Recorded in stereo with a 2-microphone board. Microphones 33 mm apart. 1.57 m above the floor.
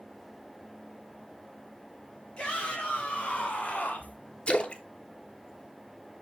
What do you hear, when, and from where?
2.4 s a shout: 30° left (ahead or behind), 4 m; by 4.2 s 55° left (ahead or behind), 1.5 m
4.5 s a splash: 35° left (ahead or behind), 1.0 m